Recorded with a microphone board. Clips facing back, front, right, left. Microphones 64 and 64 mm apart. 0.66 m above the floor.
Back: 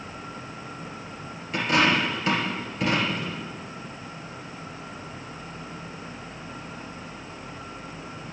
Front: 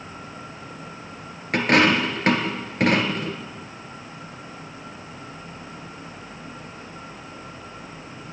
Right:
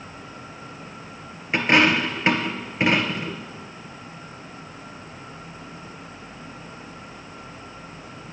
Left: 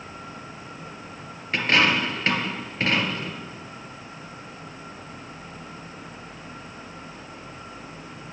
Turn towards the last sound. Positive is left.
turn(degrees=-20)